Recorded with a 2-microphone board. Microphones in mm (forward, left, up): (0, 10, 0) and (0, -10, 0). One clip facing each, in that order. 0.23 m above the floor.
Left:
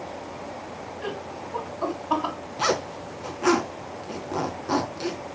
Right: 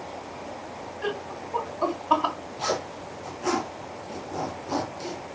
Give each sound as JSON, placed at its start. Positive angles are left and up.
{"t": 1.0, "sound": "laughter", "side_deg": -20, "distance_m": 2.0}
{"t": 2.6, "sound": "a zipper", "side_deg": 45, "distance_m": 3.0}